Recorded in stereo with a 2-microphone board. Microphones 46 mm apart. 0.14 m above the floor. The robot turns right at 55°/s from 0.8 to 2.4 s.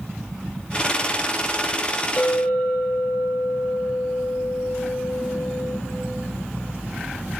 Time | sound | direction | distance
2.2 | a clink | 40° left (ahead or behind) | 1.0 m